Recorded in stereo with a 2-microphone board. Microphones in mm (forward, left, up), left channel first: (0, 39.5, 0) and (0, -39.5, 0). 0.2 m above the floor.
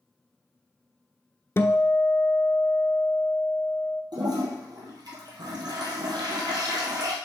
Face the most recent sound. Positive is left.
turn(degrees=-65)  # may be behind; listen again after turning